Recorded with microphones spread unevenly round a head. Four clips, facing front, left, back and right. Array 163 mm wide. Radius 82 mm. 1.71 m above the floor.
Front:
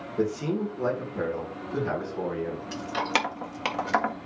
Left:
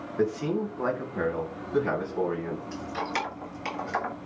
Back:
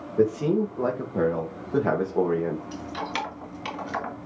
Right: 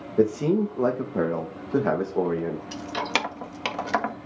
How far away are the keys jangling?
About 1.6 m.